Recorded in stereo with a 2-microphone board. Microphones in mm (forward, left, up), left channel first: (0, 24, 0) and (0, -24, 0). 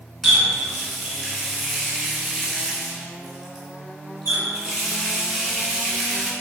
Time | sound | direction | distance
0.2 | a running tap | 5° left (ahead or behind) | 1.5 m